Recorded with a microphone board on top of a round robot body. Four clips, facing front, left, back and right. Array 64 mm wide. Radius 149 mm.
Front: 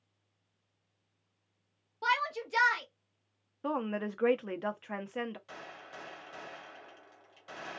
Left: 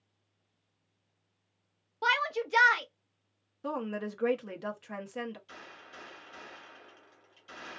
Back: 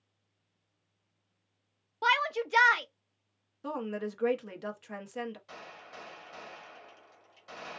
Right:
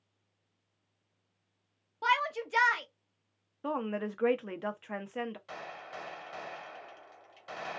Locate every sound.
2.0 s a shout: 160° left, 0.8 m
3.6 s a woman speaking: 35° right, 0.8 m
5.5 s a gunshot: 80° right, 1.4 m